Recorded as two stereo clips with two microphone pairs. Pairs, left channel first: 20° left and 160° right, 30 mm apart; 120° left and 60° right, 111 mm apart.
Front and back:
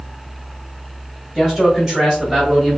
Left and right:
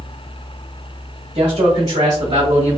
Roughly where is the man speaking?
Ahead right.